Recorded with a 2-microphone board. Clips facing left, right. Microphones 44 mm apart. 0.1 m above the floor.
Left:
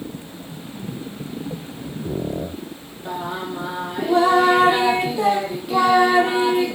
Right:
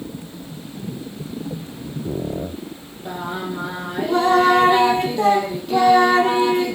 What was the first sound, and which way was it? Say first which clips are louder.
Singing: even; 5° left (ahead or behind).